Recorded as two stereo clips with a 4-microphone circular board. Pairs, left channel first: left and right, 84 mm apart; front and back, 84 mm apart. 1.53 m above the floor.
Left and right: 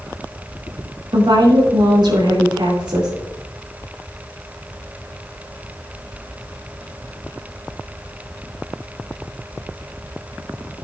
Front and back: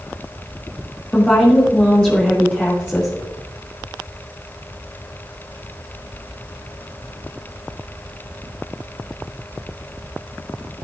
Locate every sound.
1.1 s a woman speaking: 75° right, 2.5 m